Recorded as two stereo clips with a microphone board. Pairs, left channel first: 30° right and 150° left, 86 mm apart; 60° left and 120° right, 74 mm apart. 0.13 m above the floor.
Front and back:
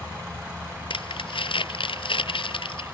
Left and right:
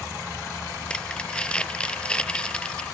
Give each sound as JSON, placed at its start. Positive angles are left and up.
{"t": 0.9, "sound": "crumpling", "azimuth_deg": -15}